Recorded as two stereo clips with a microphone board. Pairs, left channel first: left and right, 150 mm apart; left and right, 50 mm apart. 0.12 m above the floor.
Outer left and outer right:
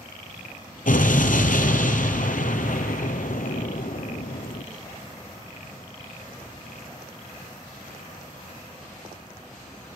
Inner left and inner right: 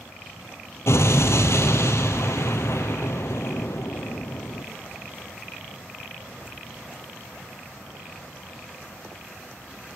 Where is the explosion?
65° left (ahead or behind), 1.3 m.